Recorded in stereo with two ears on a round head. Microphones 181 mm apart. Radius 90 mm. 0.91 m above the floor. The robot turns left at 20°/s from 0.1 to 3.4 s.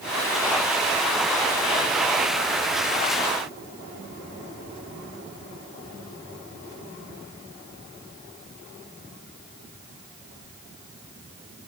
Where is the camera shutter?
I don't hear a camera shutter.